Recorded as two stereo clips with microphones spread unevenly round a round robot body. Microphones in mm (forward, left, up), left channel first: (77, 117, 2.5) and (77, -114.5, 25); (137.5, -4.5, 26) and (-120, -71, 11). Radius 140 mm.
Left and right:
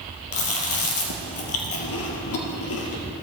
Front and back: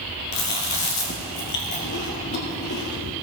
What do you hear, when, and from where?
0.3 s chewing: 70° left, 2 m